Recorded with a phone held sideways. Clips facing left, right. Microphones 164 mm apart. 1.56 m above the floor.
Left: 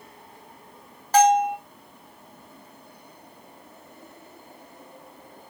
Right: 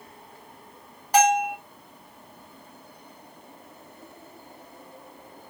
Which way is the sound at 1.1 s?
15° right (ahead or behind).